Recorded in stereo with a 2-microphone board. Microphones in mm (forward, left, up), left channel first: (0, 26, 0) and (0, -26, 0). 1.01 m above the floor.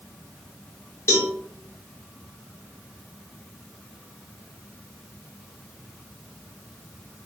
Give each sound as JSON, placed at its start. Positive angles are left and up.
{"t": 1.1, "sound": "a cowbell", "side_deg": 60, "distance_m": 0.8}